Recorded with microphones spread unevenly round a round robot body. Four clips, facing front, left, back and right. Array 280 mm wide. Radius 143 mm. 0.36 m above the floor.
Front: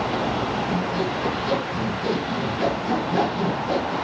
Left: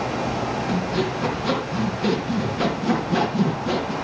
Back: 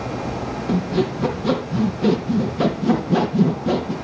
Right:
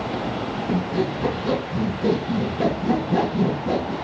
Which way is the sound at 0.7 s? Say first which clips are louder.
Right 3 dB, back 3 dB; straight behind.